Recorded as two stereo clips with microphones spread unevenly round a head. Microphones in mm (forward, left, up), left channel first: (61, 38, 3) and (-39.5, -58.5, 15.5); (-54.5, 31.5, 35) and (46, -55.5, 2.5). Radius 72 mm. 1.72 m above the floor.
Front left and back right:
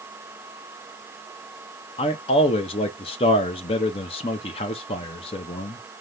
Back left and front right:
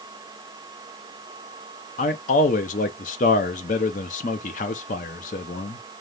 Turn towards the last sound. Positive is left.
turn(degrees=100)